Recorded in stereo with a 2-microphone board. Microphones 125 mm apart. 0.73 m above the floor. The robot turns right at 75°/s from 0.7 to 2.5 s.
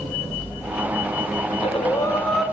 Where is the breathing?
110° left, 1.4 m; by 2.4 s 175° right, 1.4 m.